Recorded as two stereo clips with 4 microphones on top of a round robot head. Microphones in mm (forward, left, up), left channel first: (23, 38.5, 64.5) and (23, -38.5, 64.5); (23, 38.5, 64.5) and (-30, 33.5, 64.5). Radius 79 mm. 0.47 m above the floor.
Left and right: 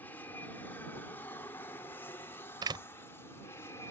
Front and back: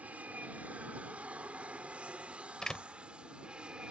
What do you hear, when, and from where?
0.0 s an aircraft: 140° left; by 3.9 s 120° left
2.6 s a door slam: 75° right